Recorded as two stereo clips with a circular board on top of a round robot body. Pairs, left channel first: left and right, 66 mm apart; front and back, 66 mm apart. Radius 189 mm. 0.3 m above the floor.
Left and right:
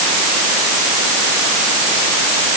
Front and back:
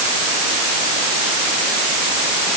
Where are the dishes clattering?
I don't hear dishes clattering.